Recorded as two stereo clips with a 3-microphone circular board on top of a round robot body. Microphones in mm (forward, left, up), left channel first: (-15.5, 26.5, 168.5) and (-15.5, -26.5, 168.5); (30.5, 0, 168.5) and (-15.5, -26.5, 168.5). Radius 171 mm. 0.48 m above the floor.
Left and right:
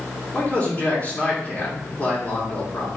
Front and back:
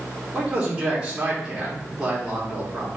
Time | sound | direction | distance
0.3 | a man speaking | 140° left | 1.9 m